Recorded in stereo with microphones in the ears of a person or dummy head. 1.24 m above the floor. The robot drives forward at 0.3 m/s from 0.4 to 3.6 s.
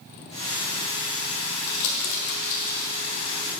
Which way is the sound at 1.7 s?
60° left (ahead or behind).